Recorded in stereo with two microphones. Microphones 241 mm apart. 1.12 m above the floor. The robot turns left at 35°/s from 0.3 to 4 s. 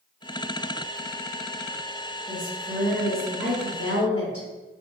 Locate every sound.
2.3 s a woman speaking: 30° right, 1.7 m; by 4.5 s 90° right, 1.7 m